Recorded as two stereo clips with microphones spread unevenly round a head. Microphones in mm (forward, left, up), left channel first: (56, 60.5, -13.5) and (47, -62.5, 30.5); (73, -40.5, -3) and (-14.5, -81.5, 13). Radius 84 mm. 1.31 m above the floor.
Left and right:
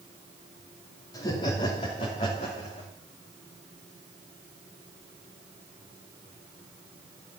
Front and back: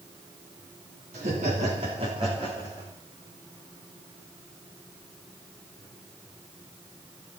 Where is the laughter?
155° left, 2.5 m; by 2.9 s 135° left, 3 m.